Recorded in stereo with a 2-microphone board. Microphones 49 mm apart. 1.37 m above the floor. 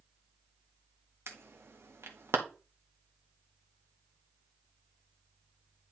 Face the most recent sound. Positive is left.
turn(degrees=-60)  # may be behind; listen again after turning